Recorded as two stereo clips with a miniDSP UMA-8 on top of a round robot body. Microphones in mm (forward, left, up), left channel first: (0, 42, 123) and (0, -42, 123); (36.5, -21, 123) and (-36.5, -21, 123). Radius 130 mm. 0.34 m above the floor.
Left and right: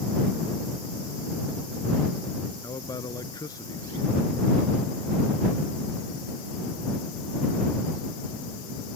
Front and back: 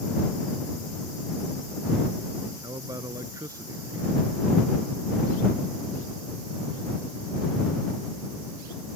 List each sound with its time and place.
2.6 s a man speaking: 135° left